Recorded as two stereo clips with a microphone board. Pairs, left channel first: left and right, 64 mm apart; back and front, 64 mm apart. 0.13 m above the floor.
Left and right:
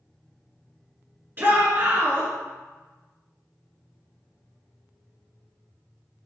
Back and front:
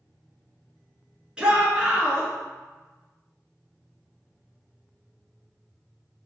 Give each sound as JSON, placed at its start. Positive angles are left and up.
{"t": 1.4, "sound": "a shout", "azimuth_deg": -65, "distance_m": 1.6}